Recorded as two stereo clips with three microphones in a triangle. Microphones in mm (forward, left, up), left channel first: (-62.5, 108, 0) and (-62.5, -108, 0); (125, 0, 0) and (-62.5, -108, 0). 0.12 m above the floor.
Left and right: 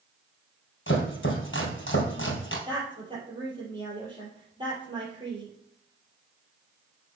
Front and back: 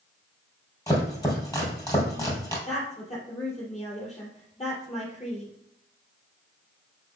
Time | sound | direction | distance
0.9 | chopping | 100° left | 2 m
2.7 | a woman speaking | 25° right | 3.5 m